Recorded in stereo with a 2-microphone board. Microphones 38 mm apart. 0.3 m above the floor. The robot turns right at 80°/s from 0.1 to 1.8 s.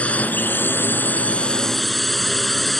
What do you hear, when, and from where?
0.0 s a drone: 40° left; by 2.8 s 175° left